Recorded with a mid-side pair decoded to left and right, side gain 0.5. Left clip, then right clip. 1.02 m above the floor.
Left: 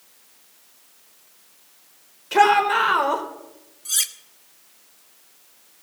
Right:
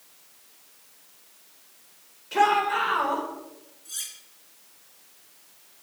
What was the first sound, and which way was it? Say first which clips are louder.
A shout: left 5 dB; 45° left.